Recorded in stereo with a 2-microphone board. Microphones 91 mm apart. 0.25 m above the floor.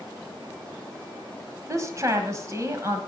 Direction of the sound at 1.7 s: 35° right (ahead or behind).